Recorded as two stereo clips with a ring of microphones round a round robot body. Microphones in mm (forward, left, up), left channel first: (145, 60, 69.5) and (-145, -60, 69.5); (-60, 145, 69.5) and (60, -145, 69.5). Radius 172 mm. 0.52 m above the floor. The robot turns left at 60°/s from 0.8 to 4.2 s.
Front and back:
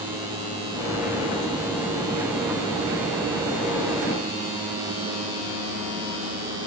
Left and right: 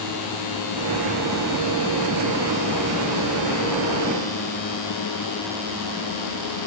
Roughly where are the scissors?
I don't hear scissors.